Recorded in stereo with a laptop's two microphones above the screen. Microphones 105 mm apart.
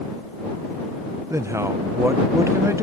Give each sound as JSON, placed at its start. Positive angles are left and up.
{"t": 1.3, "sound": "a man speaking", "side_deg": -25}